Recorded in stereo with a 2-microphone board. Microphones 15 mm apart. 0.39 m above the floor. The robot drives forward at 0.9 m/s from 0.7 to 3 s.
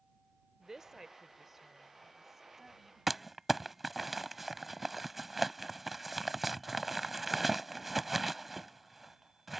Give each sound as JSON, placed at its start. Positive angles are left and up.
{"t": 0.6, "sound": "a woman speaking", "side_deg": -35}
{"t": 3.1, "sound": "crumpling", "side_deg": -10}